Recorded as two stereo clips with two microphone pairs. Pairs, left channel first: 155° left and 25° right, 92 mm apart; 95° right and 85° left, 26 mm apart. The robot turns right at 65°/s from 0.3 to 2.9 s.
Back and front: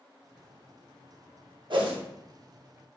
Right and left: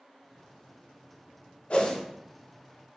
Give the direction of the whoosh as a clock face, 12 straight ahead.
2 o'clock.